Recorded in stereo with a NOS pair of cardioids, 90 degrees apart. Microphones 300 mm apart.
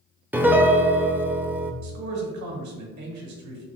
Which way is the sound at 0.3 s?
5° right.